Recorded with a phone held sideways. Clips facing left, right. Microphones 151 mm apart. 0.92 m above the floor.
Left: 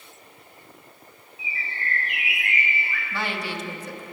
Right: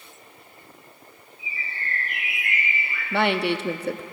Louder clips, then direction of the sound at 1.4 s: Left 2 dB; 75° left (ahead or behind).